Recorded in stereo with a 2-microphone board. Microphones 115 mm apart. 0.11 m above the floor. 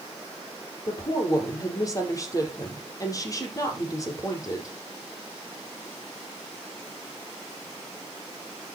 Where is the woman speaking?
30° left (ahead or behind), 4.5 m.